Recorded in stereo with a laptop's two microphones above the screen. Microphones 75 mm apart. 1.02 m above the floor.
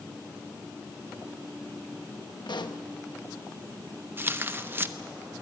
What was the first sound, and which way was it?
A pop, 80° left.